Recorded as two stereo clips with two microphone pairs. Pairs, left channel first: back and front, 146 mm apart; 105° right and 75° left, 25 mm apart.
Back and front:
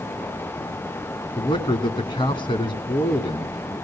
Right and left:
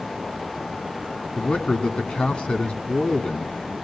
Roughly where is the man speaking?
Behind right.